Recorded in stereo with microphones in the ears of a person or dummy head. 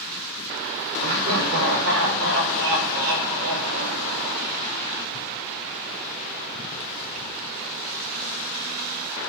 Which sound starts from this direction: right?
Laughter, at 1.0 s.